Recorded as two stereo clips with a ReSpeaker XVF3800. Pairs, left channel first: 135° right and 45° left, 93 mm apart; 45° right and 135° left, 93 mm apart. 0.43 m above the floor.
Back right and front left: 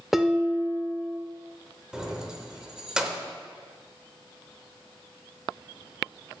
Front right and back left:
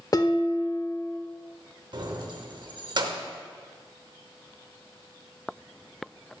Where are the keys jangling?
125° left, 0.7 m.